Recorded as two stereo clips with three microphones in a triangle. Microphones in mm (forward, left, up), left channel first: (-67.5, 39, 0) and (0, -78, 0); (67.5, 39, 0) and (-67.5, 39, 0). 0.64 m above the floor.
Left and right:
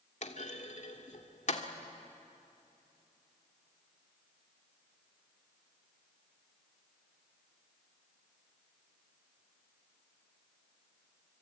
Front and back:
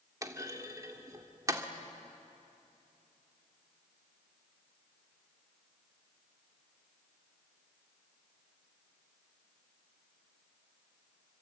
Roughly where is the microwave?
I don't hear a microwave.